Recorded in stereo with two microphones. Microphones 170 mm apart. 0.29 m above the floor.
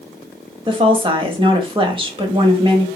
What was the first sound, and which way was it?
A woman speaking, 30° right (ahead or behind).